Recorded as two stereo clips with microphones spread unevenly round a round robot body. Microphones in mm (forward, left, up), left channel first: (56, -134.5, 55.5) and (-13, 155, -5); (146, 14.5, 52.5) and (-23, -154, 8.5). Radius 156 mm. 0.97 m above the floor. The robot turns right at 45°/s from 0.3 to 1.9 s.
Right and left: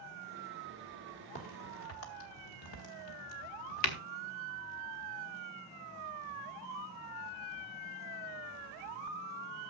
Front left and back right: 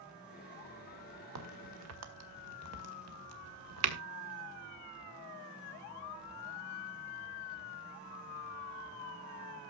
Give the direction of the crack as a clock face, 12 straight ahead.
5 o'clock.